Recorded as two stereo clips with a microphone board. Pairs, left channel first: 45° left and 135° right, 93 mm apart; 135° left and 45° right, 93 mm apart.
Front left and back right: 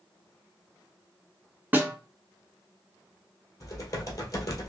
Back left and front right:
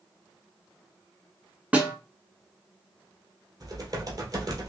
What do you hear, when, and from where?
1.7 s a snare drum: 100° right, 1.0 m
3.6 s typing on a keyboard: 5° right, 1.7 m